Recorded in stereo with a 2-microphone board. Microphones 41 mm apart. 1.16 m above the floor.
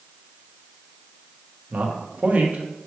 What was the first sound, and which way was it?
A man speaking, 35° right (ahead or behind).